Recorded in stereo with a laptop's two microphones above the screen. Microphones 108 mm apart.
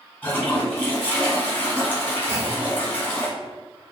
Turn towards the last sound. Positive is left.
turn(degrees=-20)  # may be behind; listen again after turning